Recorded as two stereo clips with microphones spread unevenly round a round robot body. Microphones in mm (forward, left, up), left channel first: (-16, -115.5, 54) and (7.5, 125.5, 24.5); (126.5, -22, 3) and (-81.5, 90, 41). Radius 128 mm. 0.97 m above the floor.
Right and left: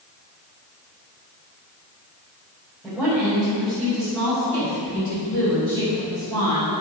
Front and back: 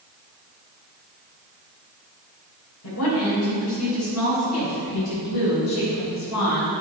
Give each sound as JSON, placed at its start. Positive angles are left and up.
{"t": 2.8, "sound": "a woman speaking", "azimuth_deg": -5, "distance_m": 4.0}